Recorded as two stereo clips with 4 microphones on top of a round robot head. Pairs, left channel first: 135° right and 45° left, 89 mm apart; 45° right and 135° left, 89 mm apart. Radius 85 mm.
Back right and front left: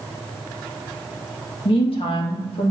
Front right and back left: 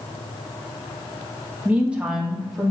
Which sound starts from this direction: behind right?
A woman speaking, at 1.6 s.